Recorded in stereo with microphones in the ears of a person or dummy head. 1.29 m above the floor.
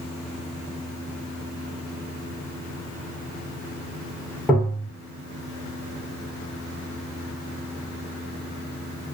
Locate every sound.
4.5 s tapping: 5° left (ahead or behind), 1.1 m